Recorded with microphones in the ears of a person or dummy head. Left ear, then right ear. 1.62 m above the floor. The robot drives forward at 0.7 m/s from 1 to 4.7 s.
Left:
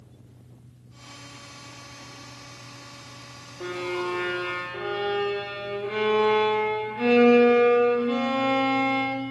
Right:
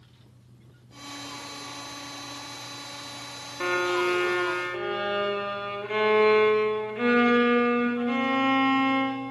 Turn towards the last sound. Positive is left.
turn(degrees=-30)  # may be behind; listen again after turning